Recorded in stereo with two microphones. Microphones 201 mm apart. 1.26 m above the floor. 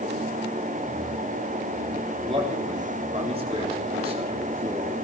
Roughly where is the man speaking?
Right.